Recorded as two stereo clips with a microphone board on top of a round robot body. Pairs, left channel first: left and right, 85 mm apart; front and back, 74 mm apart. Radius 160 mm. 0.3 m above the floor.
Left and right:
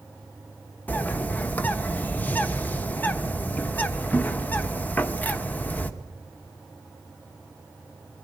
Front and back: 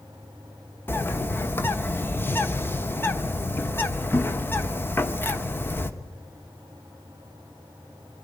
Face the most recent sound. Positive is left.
turn(degrees=35)